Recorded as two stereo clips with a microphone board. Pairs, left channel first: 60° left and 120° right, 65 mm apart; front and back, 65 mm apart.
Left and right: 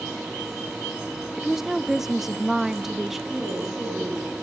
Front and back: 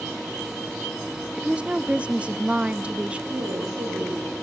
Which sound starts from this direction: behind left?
A woman speaking, at 3.3 s.